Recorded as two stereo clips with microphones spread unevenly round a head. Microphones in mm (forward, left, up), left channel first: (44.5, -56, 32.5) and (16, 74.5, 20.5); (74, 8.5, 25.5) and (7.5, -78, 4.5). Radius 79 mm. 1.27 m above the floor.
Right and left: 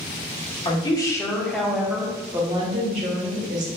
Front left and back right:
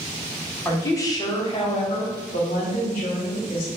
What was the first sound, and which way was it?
A woman speaking, 20° right.